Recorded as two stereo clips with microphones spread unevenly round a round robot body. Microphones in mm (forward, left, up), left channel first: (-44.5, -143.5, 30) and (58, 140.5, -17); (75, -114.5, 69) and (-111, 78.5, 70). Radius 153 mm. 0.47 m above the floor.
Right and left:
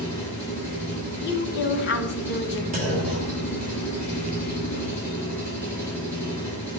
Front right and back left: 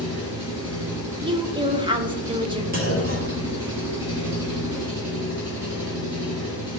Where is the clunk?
105° left, 1.7 m.